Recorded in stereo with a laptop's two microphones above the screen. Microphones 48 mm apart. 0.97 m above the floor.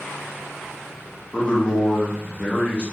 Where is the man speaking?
30° left (ahead or behind), 1.3 m.